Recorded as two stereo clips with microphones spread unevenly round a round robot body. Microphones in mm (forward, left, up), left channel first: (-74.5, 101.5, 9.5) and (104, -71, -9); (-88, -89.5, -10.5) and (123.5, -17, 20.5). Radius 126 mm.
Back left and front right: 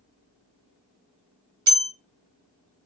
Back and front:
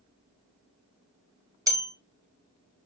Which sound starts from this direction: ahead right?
A bell, at 1.7 s.